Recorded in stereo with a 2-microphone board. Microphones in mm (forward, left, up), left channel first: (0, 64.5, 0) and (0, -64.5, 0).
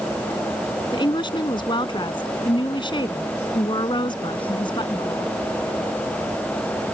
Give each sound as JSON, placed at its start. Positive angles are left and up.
{"t": 0.9, "sound": "a woman speaking", "side_deg": 40}